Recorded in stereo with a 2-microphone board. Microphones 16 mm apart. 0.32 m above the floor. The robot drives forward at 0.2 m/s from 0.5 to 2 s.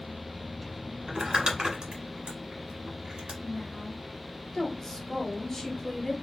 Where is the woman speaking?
25° left (ahead or behind), 1.4 m.